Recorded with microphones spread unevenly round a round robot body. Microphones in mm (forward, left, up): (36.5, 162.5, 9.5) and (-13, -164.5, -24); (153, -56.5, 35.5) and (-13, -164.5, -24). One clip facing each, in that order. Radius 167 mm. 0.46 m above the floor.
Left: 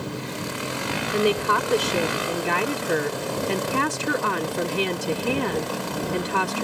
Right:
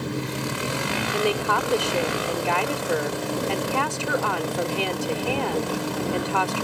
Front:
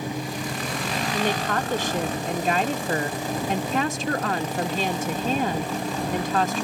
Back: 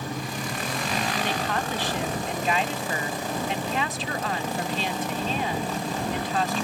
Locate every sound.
1.1 s a woman speaking: 35° left